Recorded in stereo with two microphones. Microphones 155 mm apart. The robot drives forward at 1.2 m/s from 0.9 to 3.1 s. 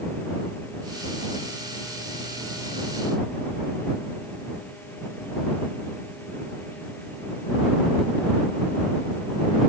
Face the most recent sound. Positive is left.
No sound to turn to.